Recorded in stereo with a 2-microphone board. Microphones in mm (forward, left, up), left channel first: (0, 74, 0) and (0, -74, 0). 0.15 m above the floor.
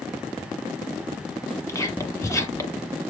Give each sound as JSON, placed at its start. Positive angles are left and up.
{"t": 1.7, "sound": "whispering", "side_deg": 20, "distance_m": 1.2}